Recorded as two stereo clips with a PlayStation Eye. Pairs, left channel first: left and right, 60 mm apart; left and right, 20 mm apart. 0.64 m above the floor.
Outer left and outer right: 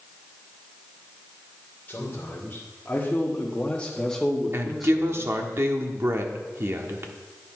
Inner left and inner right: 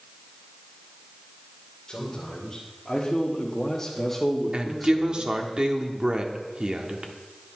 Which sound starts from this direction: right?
A woman speaking, at 4.5 s.